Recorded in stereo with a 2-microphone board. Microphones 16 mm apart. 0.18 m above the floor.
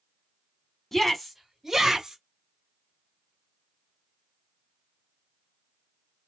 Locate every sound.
0.9 s a shout: 15° left (ahead or behind), 1.1 m; by 2.2 s 35° right (ahead or behind), 1.3 m